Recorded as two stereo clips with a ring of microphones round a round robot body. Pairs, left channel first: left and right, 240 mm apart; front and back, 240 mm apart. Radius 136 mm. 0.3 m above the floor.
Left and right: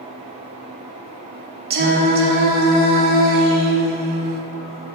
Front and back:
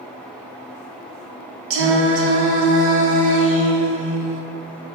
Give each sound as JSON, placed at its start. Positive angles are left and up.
{"t": 1.7, "sound": "singing", "azimuth_deg": -145, "distance_m": 0.5}